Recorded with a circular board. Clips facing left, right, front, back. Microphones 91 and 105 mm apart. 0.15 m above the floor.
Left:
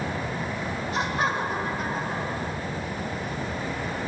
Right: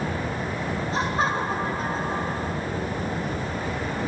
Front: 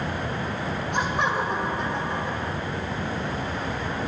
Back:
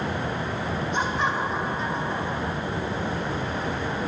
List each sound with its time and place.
0.9 s laughter: 30° right, 4.5 m